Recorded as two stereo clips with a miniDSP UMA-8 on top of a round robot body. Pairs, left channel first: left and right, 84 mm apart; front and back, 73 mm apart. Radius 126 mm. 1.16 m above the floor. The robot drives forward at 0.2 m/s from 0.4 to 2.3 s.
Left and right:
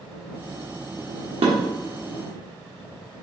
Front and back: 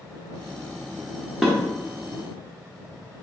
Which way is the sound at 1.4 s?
95° right.